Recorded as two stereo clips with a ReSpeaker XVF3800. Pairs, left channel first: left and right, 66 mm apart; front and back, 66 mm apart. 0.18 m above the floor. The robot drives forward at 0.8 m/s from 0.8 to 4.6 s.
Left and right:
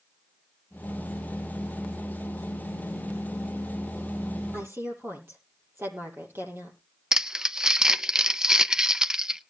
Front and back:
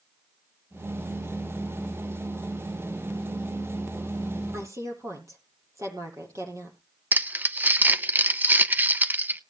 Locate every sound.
4.5 s a woman speaking: 140° right, 6.5 m
7.1 s crumpling: 155° right, 0.7 m